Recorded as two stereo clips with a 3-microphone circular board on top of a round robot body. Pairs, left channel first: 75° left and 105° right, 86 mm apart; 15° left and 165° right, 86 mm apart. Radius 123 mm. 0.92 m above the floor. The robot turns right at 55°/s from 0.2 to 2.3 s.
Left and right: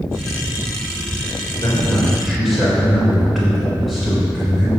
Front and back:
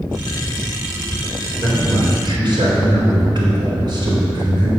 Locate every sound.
1.5 s a man speaking: 125° left, 4 m; by 4.7 s 165° left, 4 m